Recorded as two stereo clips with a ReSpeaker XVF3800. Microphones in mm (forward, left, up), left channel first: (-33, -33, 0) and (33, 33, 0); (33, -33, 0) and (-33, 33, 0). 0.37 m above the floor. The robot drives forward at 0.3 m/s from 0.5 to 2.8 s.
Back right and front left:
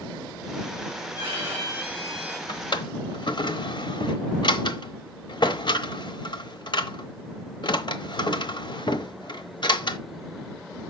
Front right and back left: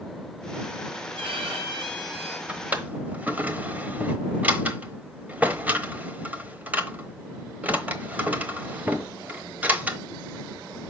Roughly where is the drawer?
Behind right.